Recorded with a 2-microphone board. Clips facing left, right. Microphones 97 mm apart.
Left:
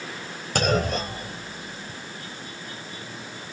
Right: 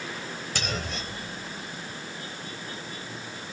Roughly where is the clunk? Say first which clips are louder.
Left 12 dB; left.